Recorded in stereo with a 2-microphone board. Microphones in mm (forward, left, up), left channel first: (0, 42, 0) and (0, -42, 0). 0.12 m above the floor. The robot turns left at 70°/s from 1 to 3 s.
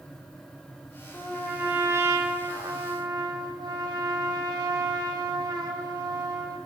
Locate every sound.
1.1 s a trumpet: 25° left, 4 m; by 6.6 s 105° right, 4 m